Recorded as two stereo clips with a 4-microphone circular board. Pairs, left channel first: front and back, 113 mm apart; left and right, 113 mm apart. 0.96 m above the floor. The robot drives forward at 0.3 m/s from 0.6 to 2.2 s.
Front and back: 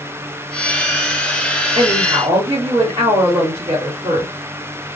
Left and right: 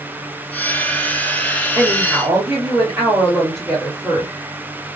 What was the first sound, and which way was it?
A woman speaking, 155° right.